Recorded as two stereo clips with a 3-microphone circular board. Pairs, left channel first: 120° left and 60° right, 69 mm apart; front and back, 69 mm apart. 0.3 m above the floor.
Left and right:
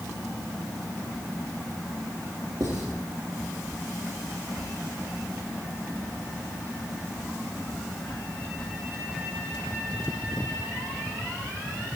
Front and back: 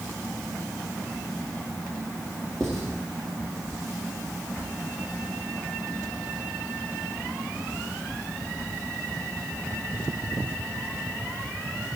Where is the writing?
85° right, 3.5 m.